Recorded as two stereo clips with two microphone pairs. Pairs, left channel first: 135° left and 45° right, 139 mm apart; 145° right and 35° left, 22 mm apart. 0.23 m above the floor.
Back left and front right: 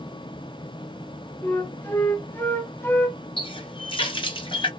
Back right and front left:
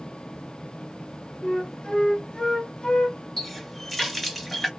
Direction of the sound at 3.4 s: 135° left.